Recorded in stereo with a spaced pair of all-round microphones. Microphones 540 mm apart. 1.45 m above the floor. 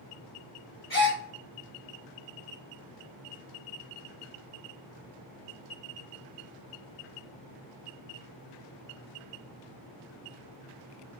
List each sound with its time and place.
0.9 s a gasp: 70° left (ahead or behind), 1.8 m